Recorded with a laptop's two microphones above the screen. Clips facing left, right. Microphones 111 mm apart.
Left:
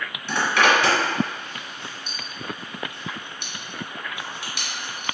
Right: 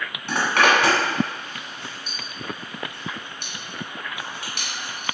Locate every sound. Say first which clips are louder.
0.3 s a zipper: right 1 dB; 50° right (ahead or behind), 1.5 m